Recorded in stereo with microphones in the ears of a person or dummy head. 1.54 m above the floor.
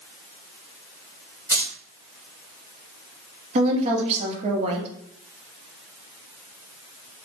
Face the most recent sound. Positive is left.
turn(degrees=-30)  # may be behind; listen again after turning